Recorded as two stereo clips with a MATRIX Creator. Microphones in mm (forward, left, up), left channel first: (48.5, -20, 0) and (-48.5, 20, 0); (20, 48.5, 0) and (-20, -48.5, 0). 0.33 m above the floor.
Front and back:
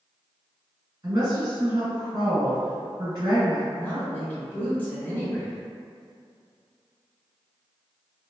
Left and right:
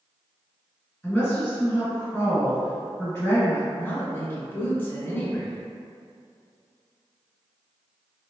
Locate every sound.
1.0 s a woman speaking: 140° left, 1.9 m
3.7 s a woman speaking: 30° left, 0.9 m